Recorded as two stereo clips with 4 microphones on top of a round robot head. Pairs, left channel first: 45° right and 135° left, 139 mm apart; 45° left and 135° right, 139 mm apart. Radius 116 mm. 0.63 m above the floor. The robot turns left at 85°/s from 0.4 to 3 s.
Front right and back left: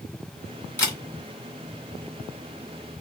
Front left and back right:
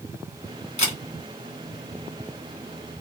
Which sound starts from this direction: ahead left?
A camera shutter, at 0.8 s.